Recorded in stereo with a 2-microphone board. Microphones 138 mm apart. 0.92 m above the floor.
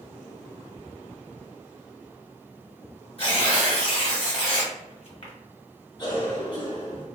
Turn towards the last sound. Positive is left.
turn(degrees=35)  # may be behind; listen again after turning